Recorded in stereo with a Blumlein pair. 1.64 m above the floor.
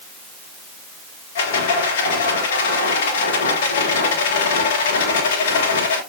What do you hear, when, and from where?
1.4 s a rattle: 55° left, 1.9 m